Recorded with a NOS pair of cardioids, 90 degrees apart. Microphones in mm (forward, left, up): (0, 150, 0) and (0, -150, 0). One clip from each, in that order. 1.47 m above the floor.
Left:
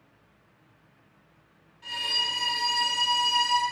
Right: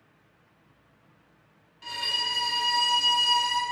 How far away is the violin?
About 0.9 m.